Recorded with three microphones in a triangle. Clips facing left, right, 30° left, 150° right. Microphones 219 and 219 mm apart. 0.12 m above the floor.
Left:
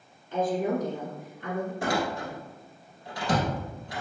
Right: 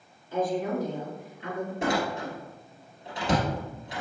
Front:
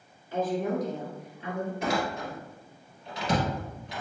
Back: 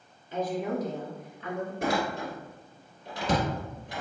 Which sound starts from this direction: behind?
A woman speaking, at 0.3 s.